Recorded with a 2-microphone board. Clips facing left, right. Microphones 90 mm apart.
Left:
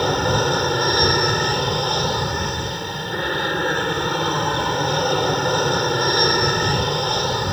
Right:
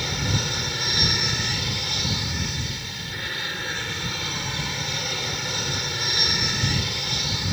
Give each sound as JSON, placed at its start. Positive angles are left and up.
{"t": 0.0, "sound": "an aircraft", "side_deg": 50}